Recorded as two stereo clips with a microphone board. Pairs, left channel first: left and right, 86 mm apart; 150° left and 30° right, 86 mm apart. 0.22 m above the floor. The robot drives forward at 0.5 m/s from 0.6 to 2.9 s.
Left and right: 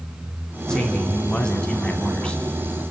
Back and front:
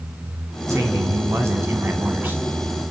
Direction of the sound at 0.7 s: 10° left.